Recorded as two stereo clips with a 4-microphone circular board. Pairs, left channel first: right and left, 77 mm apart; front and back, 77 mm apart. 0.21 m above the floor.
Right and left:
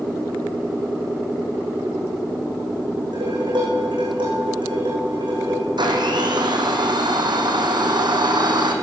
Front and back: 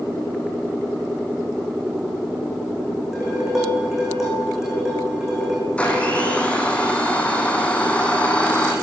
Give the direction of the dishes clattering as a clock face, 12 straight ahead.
9 o'clock.